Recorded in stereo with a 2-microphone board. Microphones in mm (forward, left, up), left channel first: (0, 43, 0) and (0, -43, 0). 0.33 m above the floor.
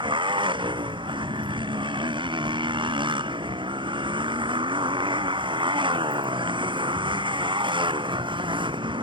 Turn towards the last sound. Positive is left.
turn(degrees=-70)  # may be behind; listen again after turning